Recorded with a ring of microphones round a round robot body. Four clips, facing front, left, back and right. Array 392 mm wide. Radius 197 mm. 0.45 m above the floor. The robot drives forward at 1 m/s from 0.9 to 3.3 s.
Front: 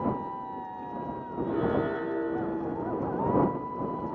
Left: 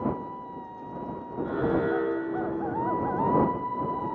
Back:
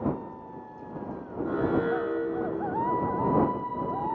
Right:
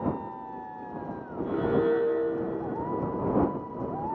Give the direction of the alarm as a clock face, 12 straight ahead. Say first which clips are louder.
Right 1 dB, back 1 dB; 5 o'clock.